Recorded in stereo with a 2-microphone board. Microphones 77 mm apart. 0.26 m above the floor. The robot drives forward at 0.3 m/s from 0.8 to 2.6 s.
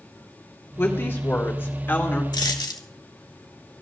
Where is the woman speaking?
30° left (ahead or behind), 2.5 m; by 2.2 s 25° left (ahead or behind), 3 m.